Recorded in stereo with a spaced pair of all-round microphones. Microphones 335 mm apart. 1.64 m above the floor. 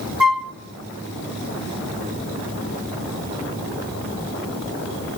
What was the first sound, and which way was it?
A flute, 80° right.